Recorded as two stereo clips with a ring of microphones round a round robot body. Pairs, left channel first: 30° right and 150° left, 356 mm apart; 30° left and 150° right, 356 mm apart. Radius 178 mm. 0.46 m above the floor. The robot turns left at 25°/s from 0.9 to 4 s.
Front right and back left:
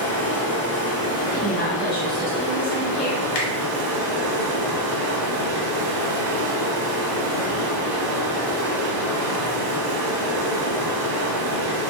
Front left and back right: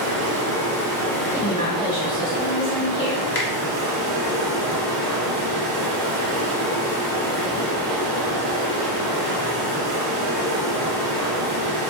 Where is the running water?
100° right, 1.1 m; by 11.9 s straight behind, 1.1 m.